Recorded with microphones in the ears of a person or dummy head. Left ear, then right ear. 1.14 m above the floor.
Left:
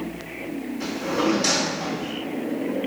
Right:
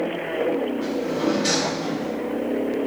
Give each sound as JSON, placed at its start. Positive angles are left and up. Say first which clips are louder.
{"t": 0.8, "sound": "a drawer", "louder": "even", "side_deg": 65, "distance_m": 0.9}